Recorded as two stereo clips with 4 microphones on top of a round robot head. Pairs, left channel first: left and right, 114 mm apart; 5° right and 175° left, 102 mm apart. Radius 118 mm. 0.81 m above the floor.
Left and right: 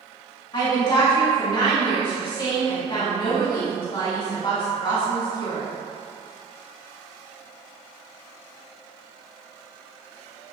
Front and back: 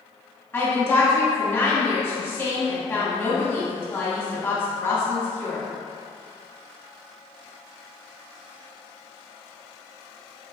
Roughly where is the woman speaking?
Ahead left.